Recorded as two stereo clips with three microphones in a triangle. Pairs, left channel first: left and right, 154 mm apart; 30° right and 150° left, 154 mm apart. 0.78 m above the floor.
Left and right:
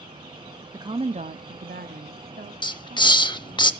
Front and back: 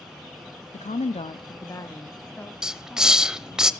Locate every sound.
0.7 s a woman speaking: 30° right, 0.6 m; by 3.6 s 120° right, 1.9 m
2.6 s a hiss: 70° left, 0.6 m